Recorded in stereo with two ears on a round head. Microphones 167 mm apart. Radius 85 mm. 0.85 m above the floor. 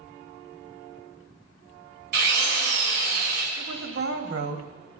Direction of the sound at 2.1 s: 55° right (ahead or behind).